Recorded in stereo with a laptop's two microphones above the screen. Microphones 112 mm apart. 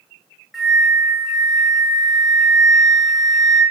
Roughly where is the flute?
Centre.